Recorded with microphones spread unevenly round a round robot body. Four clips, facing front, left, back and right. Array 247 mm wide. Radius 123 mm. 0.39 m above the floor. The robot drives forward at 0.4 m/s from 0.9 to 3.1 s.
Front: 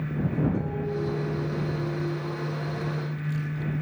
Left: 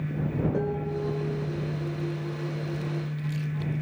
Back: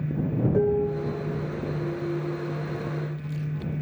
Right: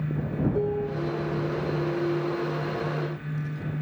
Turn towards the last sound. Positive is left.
turn(degrees=145)